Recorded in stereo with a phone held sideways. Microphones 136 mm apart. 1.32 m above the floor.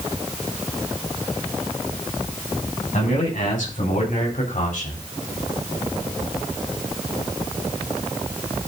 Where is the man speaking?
85° left, 6.5 m; by 5.0 s 75° left (ahead or behind), 3 m.